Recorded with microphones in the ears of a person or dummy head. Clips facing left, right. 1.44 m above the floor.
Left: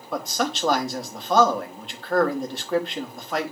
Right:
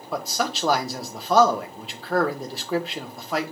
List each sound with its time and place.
0.1 s a man speaking: 5° right (ahead or behind), 1.2 m